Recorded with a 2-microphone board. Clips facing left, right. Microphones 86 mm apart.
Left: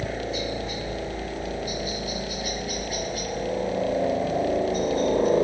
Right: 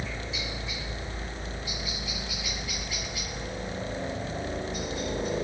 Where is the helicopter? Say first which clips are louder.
Left 8 dB; 45° left (ahead or behind).